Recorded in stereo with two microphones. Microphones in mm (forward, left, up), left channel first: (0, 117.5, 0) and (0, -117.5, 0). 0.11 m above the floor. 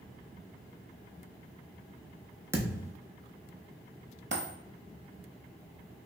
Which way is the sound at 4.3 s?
55° right (ahead or behind).